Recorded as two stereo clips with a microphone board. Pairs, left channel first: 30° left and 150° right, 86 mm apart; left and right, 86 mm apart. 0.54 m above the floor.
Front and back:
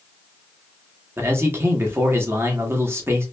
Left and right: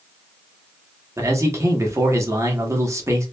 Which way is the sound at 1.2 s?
115° right.